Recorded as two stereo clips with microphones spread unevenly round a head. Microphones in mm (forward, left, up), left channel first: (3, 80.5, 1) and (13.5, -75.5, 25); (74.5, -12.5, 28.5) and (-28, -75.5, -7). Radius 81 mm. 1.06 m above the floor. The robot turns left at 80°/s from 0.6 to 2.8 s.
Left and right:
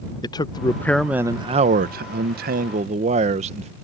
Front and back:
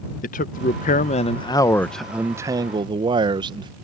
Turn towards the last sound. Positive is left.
turn(degrees=-135)